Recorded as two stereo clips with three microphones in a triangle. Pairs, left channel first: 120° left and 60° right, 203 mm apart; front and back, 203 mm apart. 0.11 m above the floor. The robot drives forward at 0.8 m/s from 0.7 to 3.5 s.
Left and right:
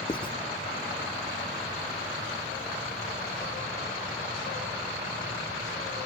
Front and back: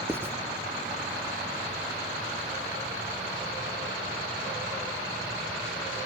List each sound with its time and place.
0.1 s writing: 115° left, 0.5 m